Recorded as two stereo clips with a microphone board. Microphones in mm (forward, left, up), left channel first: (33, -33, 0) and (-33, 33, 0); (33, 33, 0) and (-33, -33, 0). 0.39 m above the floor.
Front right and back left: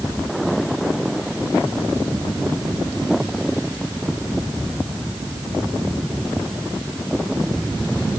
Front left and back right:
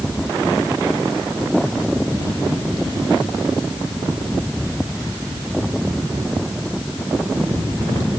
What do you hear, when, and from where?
Only background noise.